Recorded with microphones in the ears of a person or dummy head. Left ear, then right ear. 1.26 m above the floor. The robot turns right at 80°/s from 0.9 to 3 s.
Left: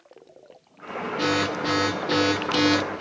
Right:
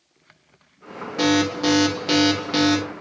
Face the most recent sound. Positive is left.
turn(degrees=15)